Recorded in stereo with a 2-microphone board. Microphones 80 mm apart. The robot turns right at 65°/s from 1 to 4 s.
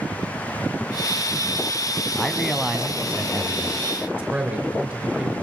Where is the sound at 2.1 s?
10° left (ahead or behind), 1.0 m; by 3.8 s 25° right (ahead or behind), 1.0 m.